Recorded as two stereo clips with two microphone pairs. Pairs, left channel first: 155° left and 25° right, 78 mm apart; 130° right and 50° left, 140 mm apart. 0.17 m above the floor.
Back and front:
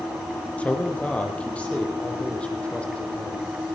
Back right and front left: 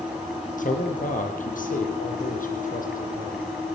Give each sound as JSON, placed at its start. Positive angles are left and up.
{"t": 0.6, "sound": "a man speaking", "azimuth_deg": -135, "distance_m": 5.0}